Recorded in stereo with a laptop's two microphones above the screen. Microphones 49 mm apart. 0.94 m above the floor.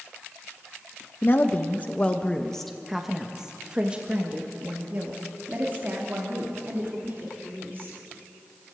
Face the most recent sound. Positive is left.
turn(degrees=-45)  # may be behind; listen again after turning